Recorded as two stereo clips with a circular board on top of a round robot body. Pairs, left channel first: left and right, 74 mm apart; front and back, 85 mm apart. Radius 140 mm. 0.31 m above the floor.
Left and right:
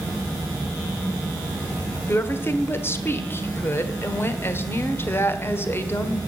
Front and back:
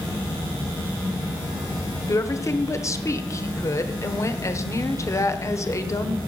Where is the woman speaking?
40° left, 1.8 m.